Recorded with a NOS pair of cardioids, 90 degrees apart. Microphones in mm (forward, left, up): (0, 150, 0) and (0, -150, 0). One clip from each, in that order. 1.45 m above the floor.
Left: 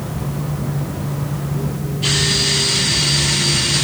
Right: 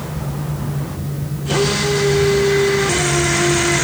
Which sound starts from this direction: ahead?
A fan, at 0.0 s.